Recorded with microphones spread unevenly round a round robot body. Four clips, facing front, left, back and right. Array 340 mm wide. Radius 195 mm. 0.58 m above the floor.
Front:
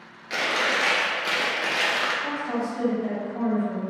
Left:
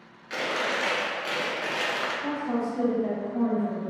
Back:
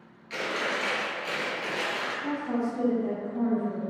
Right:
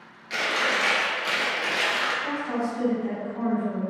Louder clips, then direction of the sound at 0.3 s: Right 2 dB, front 5 dB; 5° left.